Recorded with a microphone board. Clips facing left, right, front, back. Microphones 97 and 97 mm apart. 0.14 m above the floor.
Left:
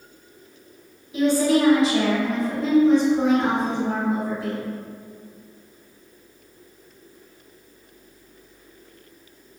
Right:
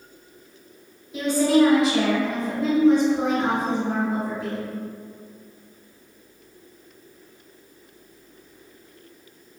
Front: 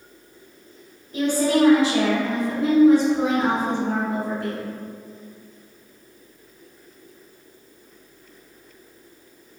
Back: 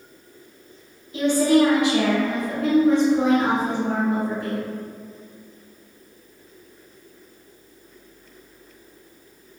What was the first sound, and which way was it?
A woman speaking, straight ahead.